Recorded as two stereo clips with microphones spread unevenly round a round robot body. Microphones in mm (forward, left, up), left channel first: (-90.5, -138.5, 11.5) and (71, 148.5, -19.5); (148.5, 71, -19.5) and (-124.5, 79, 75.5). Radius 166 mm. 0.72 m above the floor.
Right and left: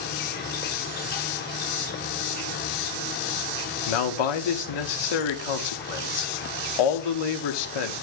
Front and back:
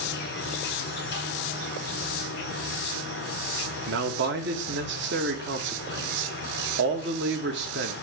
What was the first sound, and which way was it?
An insect, 55° right.